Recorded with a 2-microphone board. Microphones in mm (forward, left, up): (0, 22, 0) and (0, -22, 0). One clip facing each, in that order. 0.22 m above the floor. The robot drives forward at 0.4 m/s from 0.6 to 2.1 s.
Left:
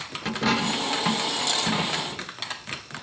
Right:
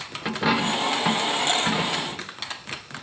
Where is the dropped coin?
15° right (ahead or behind), 1.3 m; by 2.3 s 10° right (ahead or behind), 1.9 m.